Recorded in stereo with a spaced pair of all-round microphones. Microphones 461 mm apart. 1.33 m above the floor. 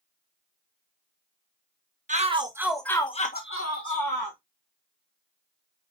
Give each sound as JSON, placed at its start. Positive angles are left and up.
{"t": 2.1, "sound": "a shout", "side_deg": -15, "distance_m": 2.0}